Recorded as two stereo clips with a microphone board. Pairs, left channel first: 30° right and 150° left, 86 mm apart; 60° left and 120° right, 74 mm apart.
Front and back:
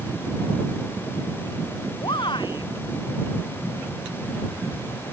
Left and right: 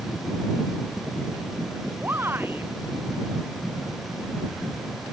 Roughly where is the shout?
Ahead right.